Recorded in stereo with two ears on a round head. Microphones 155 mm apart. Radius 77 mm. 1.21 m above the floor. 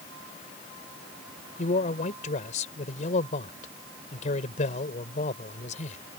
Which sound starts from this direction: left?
A man speaking, at 1.6 s.